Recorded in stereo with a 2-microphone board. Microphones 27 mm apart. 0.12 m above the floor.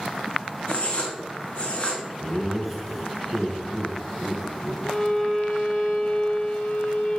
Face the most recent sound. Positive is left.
turn(degrees=55)  # may be behind; listen again after turning